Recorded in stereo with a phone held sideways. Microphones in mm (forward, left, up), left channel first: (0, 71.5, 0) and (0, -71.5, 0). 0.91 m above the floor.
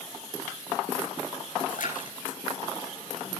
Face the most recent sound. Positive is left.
turn(degrees=85)